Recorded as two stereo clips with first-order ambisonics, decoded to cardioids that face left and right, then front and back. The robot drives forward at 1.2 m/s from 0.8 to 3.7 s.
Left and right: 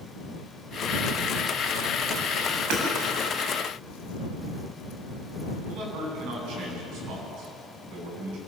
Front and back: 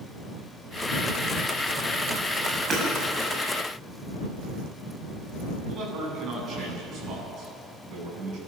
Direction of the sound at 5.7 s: 125° right.